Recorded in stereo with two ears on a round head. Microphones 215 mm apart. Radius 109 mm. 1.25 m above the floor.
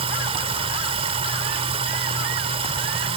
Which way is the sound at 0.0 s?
25° right (ahead or behind).